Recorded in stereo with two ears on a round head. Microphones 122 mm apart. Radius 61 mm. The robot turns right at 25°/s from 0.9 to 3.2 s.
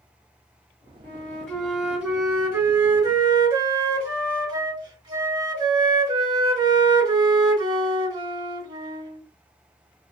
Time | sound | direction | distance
1.0 | a flute | 165° left | 1.9 m